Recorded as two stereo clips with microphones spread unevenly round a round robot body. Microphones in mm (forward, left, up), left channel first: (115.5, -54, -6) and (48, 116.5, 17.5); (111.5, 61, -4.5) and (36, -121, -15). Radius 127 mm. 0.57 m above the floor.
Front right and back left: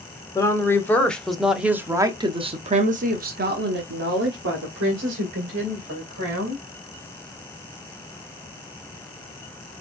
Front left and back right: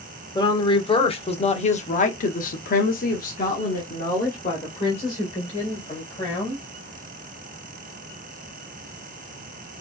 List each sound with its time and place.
0.3 s a woman speaking: straight ahead, 1.6 m; by 6.6 s 140° left, 2.5 m